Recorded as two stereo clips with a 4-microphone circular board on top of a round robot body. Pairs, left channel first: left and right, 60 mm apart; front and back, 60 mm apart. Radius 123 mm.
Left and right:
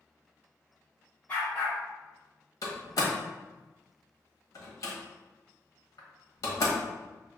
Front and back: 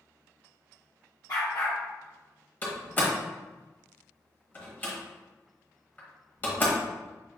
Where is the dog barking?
25° left, 1.6 m.